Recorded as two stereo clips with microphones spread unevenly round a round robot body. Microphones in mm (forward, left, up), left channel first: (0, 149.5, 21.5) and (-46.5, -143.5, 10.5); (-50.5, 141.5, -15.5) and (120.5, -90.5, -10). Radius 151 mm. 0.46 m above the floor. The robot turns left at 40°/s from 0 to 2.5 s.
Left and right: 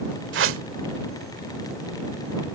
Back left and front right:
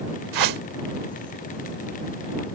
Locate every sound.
0.3 s a whoosh: 50° right; by 0.6 s 60° right